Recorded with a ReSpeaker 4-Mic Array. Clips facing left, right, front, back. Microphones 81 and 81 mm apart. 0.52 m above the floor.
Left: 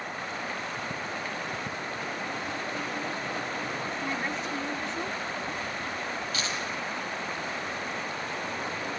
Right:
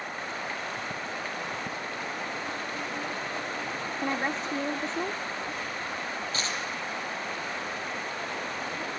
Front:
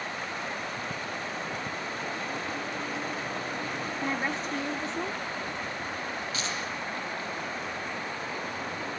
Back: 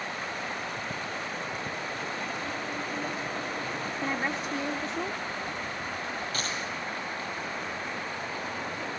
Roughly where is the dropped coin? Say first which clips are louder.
Even, even; behind right.